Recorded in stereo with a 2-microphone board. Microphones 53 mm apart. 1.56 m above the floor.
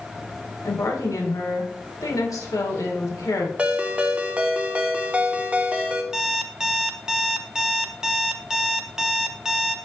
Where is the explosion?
I don't hear an explosion.